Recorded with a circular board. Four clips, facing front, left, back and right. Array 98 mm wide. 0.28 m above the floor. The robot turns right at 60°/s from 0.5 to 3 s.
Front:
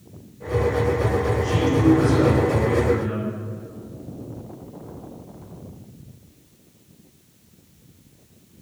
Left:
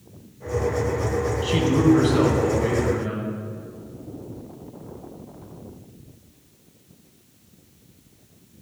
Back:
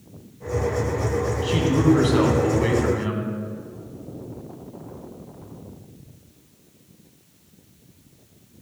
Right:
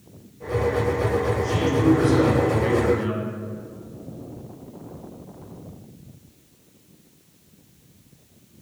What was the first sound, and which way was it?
A man speaking, 110° left.